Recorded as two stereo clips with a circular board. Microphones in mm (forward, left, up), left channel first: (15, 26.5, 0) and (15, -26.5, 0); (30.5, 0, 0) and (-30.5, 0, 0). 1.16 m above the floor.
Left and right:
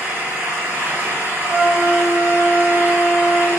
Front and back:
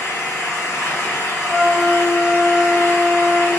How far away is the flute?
About 0.7 m.